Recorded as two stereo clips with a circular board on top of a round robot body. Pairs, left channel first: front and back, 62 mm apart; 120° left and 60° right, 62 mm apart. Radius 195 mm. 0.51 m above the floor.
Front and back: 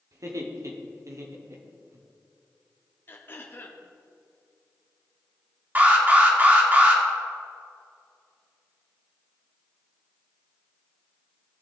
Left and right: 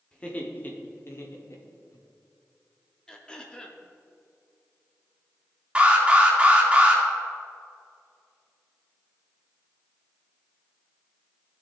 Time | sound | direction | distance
0.1 | laughter | 170° right | 1.8 m
3.1 | throat clearing | 45° left | 1.4 m
5.8 | an alarm | 130° right | 3 m